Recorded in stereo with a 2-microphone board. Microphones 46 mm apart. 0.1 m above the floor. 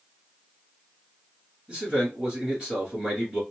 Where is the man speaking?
20° right (ahead or behind), 1.7 m.